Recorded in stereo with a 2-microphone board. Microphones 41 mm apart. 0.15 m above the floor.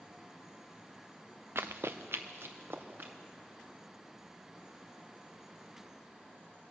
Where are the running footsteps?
75° right (ahead or behind), 0.8 m; by 3.1 s 55° right (ahead or behind), 3 m.